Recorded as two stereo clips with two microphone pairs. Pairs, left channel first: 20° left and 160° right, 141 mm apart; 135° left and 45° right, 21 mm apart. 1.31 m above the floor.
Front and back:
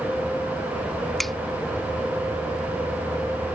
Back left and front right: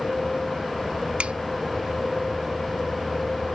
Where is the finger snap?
70° right.